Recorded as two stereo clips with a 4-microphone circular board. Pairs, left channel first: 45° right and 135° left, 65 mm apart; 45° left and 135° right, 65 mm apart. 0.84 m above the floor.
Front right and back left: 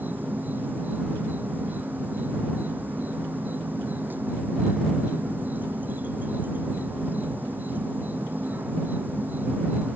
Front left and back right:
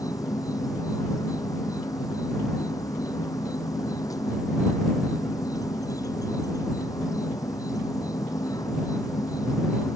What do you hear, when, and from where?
0.0 s an insect: 70° left